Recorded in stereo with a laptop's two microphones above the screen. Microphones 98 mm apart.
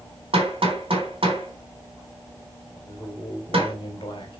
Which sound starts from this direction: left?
A man speaking, at 2.8 s.